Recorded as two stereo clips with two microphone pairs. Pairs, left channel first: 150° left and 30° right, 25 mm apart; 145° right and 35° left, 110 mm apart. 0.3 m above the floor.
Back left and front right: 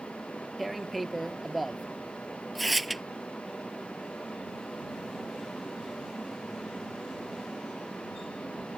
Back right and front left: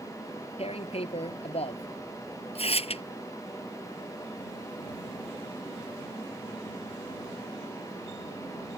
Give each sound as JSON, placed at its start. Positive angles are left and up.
{"t": 0.6, "sound": "tearing paper", "azimuth_deg": -125}